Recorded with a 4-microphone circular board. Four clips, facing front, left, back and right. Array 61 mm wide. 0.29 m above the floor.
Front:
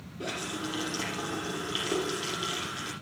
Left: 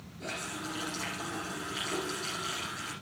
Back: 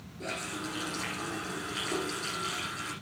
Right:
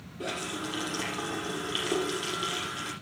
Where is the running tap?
65° right, 7 m.